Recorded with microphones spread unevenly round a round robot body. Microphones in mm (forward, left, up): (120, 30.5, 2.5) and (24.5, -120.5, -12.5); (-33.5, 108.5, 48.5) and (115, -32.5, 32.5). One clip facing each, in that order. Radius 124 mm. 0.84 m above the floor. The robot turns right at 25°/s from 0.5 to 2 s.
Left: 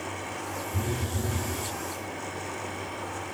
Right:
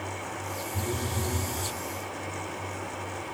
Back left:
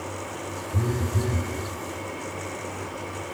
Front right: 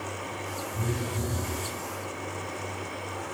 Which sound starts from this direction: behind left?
A phone buzzing, at 0.7 s.